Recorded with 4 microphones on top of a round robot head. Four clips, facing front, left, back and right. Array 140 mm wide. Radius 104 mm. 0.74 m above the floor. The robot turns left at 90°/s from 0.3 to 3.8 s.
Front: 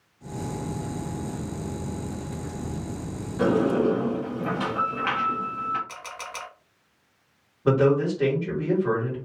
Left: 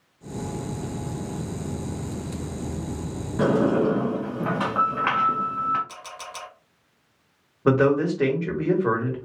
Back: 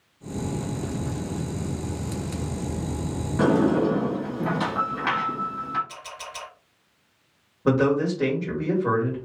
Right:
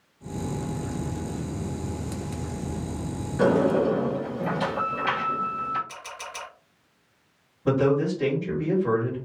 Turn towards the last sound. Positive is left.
turn(degrees=105)